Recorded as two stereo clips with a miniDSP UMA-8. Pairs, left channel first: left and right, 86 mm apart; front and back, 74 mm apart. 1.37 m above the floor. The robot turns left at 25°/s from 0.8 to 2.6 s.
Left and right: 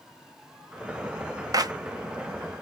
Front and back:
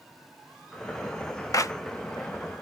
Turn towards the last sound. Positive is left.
turn(degrees=-70)